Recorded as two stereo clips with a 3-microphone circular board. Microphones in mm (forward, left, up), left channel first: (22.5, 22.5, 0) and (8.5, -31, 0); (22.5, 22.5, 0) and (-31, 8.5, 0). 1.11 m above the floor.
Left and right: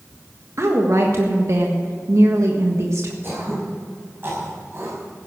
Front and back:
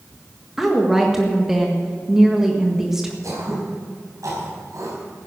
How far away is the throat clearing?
About 5.5 m.